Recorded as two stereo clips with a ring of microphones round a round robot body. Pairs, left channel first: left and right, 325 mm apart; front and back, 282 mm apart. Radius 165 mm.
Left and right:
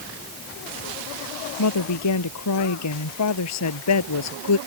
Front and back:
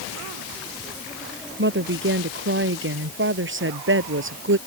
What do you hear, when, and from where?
1.6 s a woman speaking: 130° left; by 4.6 s 135° left